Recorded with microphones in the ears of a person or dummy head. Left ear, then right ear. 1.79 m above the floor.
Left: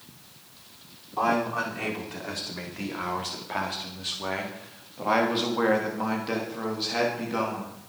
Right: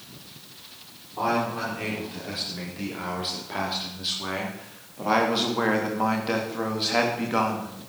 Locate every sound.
1.2 s a man speaking: 45° left (ahead or behind), 5 m; by 7.7 s 25° right (ahead or behind), 3 m